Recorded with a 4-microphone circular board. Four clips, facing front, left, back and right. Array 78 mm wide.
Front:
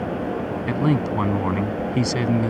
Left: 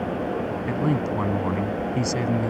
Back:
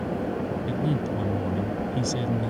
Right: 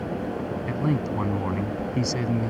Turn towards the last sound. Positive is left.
turn(degrees=10)